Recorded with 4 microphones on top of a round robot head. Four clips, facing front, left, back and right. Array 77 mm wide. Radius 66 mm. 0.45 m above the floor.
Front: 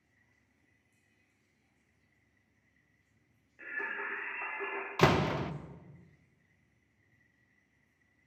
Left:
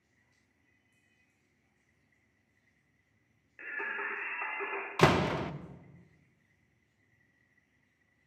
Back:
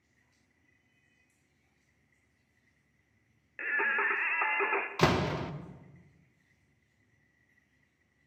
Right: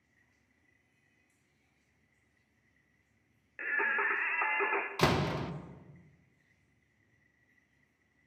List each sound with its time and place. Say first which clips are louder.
3.6 s singing: right 6 dB, back 8 dB; 150° right, 0.8 m
5.0 s a door slam: left 6 dB, front 2 dB; 75° left, 0.5 m